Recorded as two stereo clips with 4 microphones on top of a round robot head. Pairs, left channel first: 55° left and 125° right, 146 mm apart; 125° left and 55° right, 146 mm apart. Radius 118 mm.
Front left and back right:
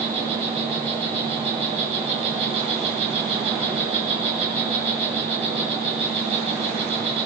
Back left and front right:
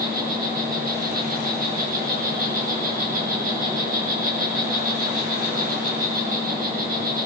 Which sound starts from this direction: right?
An insect, at 0.0 s.